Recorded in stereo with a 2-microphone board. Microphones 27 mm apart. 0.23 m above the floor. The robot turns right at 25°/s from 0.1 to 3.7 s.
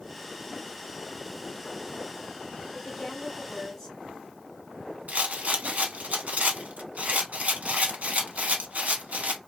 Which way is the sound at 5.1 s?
60° right (ahead or behind).